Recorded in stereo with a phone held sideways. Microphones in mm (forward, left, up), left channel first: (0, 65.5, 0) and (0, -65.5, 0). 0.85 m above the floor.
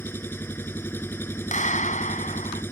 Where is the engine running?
15° left (ahead or behind).